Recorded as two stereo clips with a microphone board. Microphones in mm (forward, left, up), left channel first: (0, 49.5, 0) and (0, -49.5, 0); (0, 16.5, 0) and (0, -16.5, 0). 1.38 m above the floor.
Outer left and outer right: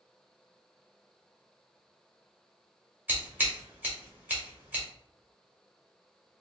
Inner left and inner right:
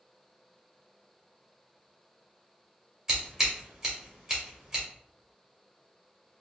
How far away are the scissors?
About 1.4 m.